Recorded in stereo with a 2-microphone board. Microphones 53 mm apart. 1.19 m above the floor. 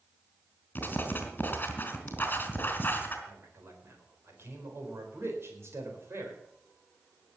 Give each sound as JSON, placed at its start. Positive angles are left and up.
{"t": 0.8, "sound": "writing", "side_deg": 35, "distance_m": 3.0}
{"t": 3.3, "sound": "a man speaking", "side_deg": -55, "distance_m": 4.5}